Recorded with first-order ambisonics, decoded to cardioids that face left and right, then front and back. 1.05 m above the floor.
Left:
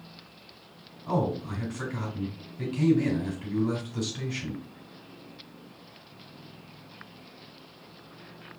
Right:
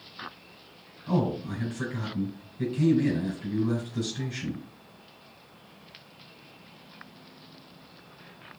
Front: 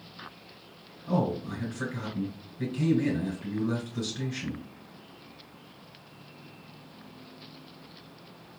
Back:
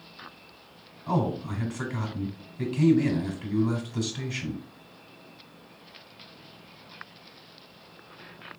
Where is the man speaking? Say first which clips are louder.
Left 1 dB, back 1 dB; 155° left, 3 m.